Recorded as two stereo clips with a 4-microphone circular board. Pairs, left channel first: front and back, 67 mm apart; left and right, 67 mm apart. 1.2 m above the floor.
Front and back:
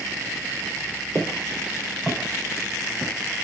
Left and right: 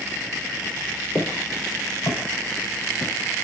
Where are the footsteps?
120° left, 2.5 m; by 3.1 s 95° left, 3 m.